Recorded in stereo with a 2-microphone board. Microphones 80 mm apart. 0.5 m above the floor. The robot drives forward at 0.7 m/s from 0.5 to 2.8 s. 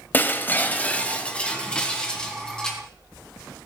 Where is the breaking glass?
25° left (ahead or behind), 1.0 m; by 2.8 s 10° left (ahead or behind), 2.5 m.